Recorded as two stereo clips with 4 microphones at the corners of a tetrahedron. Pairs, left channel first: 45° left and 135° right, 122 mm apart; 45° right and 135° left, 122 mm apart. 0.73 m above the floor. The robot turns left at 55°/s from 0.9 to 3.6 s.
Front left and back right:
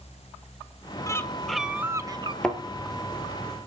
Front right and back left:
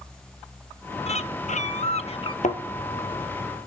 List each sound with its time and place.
1.1 s a bird: 20° right, 0.9 m; by 2.3 s 90° right, 0.9 m
2.4 s a thud: 40° right, 1.8 m; by 2.6 s 45° right, 1.8 m